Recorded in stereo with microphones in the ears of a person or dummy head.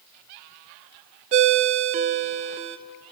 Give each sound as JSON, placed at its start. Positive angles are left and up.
{"t": 1.3, "sound": "a ringtone", "side_deg": -35, "distance_m": 1.0}